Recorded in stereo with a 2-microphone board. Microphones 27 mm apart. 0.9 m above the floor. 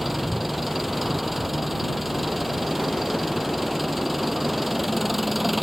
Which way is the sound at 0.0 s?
5° right (ahead or behind).